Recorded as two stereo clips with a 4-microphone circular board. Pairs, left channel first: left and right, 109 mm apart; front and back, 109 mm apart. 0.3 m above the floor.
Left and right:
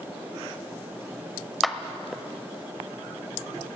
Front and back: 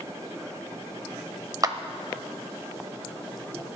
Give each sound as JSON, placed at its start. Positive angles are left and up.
{"t": 1.6, "sound": "a clap", "azimuth_deg": 180, "distance_m": 0.7}